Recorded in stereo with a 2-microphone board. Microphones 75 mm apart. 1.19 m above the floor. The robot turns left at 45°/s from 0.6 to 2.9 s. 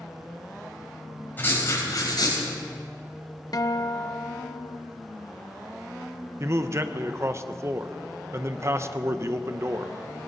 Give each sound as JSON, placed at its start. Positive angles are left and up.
{"t": 1.4, "sound": "writing", "azimuth_deg": 155, "distance_m": 4.0}
{"t": 3.5, "sound": "a guitar", "side_deg": 55, "distance_m": 0.7}
{"t": 6.4, "sound": "a man speaking", "side_deg": -40, "distance_m": 0.8}